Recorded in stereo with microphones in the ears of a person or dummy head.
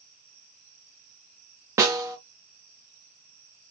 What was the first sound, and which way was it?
A snare drum, 15° right (ahead or behind).